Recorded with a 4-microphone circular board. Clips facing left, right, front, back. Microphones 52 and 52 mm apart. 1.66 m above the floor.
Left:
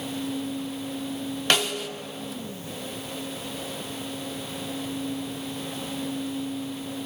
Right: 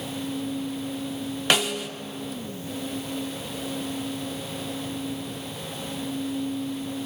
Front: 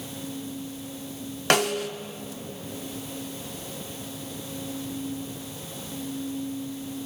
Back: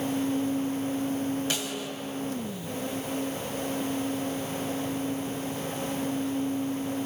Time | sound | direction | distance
1.5 | a snare drum | 10° right | 1.1 m